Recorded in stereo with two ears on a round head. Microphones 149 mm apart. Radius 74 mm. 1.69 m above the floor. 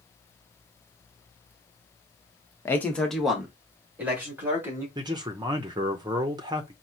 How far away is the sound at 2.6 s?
About 0.8 m.